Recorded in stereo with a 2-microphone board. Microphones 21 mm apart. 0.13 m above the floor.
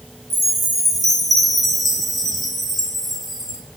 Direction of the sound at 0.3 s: 5° left (ahead or behind).